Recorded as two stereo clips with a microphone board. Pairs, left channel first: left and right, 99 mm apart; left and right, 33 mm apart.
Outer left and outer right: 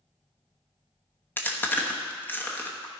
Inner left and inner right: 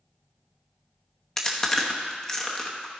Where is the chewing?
20° left (ahead or behind), 1.0 m.